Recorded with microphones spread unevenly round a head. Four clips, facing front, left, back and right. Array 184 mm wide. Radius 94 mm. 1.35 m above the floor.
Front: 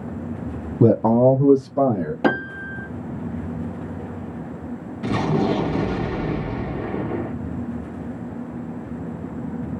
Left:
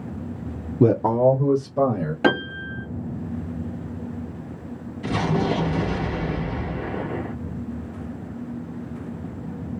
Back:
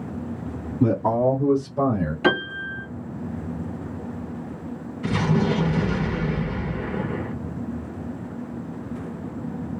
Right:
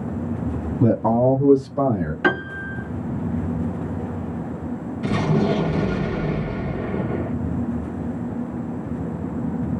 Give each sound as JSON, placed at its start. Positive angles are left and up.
{"t": 0.8, "sound": "a man speaking", "azimuth_deg": 30, "distance_m": 0.7}
{"t": 2.2, "sound": "a piano", "azimuth_deg": 35, "distance_m": 3.0}
{"t": 5.0, "sound": "an explosion", "azimuth_deg": 0, "distance_m": 2.5}